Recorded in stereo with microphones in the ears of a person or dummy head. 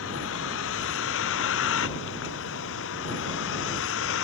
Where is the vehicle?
75° left (ahead or behind).